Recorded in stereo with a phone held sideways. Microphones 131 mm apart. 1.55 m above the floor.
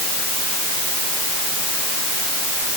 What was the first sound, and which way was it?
Only background noise.